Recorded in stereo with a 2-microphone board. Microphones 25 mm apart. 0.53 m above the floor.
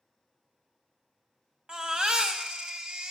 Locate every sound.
1.7 s a baby crying: 35° right (ahead or behind), 1.0 m